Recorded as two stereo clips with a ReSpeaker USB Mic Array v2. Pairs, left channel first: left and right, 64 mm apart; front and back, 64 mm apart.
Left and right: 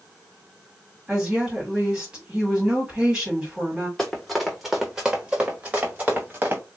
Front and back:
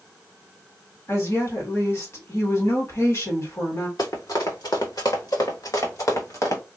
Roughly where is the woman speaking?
Ahead.